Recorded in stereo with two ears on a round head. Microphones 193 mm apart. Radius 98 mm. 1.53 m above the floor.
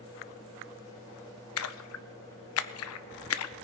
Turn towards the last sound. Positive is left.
turn(degrees=75)  # may be behind; listen again after turning